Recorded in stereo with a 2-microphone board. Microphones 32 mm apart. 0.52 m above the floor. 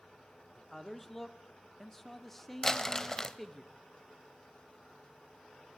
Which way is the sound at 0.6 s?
5° left (ahead or behind).